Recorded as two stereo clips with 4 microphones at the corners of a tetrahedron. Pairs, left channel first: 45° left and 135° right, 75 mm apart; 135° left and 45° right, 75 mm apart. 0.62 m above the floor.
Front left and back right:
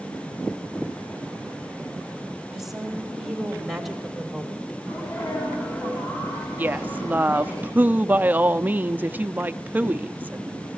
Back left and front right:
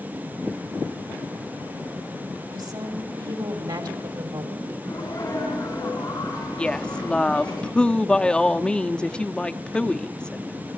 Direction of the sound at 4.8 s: 90° left.